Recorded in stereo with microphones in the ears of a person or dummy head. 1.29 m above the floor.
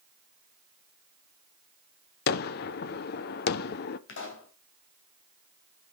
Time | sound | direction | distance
2.3 | a gunshot | 55° left (ahead or behind) | 0.6 m
4.1 | a pop | 70° left (ahead or behind) | 3 m